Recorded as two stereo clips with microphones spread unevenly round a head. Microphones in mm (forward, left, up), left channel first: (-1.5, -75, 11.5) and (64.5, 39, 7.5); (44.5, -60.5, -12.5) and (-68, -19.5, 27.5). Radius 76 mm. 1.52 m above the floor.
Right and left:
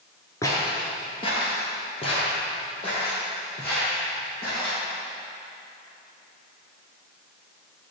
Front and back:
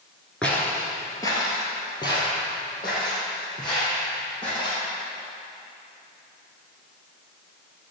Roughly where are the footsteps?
Behind right.